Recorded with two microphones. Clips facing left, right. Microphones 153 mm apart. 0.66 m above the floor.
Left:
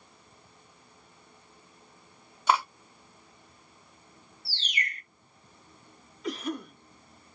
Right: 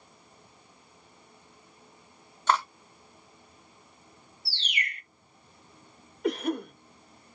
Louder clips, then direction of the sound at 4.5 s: Even; 40° left (ahead or behind).